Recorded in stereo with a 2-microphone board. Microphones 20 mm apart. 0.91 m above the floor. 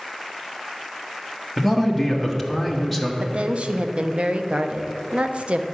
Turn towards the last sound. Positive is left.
turn(degrees=-65)  # may be behind; listen again after turning